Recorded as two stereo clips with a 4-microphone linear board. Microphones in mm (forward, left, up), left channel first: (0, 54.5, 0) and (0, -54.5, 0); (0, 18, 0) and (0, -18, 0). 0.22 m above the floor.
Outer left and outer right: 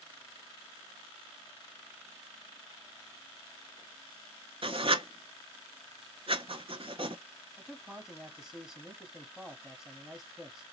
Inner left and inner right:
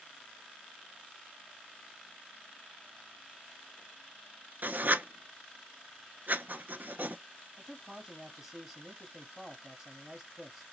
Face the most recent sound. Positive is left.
turn(degrees=-5)  # may be behind; listen again after turning